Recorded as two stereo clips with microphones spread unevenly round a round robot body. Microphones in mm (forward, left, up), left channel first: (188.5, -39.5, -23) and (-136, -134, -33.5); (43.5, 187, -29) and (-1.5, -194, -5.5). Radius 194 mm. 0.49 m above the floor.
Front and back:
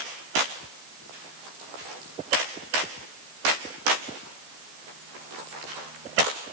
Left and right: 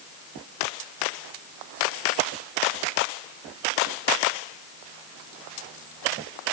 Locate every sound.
Only background noise.